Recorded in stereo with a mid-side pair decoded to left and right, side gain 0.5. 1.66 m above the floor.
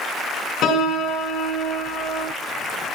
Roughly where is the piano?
Left.